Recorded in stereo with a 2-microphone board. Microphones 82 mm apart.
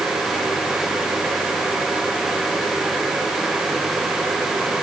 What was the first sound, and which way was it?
Only background noise.